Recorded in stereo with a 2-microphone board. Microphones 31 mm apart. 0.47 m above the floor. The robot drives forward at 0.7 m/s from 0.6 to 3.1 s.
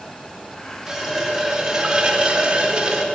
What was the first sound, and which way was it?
A running tap, 15° right (ahead or behind).